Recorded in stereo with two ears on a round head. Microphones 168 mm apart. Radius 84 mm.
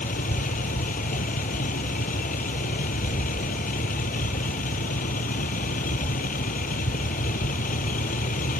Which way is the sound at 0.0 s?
45° left (ahead or behind).